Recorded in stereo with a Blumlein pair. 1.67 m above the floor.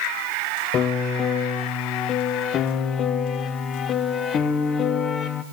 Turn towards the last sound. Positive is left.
turn(degrees=30)